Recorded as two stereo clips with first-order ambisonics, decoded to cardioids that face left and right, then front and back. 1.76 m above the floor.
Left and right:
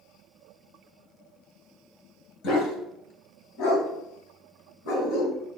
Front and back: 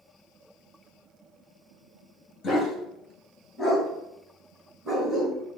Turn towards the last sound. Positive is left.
turn(degrees=85)